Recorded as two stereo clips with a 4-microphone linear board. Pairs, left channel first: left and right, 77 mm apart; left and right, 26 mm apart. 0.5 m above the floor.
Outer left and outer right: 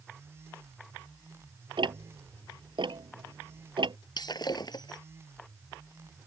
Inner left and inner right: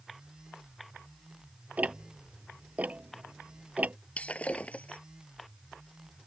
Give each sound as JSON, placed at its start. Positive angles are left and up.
{"t": 1.8, "sound": "ticking", "side_deg": -90}
{"t": 4.2, "sound": "breaking glass", "side_deg": 60}